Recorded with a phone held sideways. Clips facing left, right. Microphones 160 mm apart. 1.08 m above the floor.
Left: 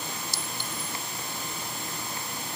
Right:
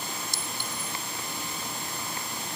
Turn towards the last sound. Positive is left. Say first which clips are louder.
# even
turn(degrees=-55)  # may be behind; listen again after turning